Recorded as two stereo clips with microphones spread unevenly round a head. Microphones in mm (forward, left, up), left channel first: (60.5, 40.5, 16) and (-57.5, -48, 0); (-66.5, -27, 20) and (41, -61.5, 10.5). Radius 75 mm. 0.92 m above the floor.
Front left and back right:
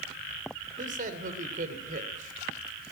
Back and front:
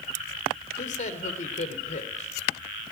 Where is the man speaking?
Straight behind, 3 m.